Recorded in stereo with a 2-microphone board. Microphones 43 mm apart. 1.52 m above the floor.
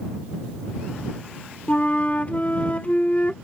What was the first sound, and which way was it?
A flute, 35° left (ahead or behind).